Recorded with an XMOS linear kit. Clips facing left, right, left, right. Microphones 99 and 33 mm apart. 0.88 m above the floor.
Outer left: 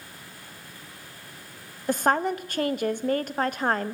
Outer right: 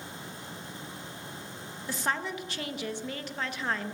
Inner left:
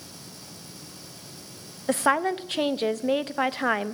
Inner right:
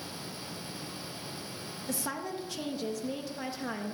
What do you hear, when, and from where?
1.9 s a woman speaking: 50° left (ahead or behind), 0.6 m